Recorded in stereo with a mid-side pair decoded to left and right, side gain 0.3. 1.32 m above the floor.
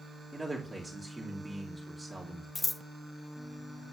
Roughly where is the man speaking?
Ahead.